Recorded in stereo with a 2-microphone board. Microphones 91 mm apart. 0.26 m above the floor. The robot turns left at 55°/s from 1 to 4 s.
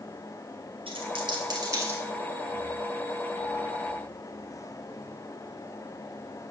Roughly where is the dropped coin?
Right.